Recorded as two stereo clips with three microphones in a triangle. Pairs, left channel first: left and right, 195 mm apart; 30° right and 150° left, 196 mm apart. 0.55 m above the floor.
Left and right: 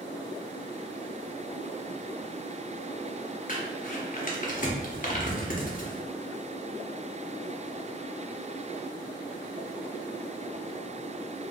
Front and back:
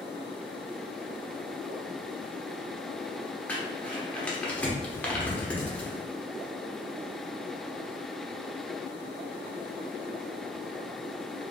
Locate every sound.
3.5 s crumpling: 50° left, 0.8 m